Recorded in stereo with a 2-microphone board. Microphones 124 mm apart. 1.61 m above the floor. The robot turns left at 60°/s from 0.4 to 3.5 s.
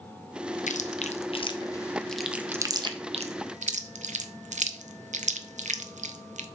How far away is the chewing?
About 0.6 m.